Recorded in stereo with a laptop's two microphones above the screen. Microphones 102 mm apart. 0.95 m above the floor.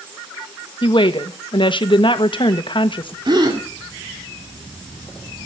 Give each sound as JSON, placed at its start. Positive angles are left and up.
{"t": 0.8, "sound": "a woman speaking", "side_deg": 55, "distance_m": 1.2}
{"t": 3.2, "sound": "a gasp", "side_deg": -45, "distance_m": 2.0}